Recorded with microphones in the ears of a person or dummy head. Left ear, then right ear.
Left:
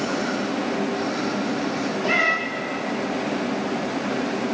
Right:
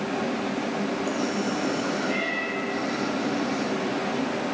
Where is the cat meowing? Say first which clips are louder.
Left 7 dB; 55° left (ahead or behind), 1.8 m.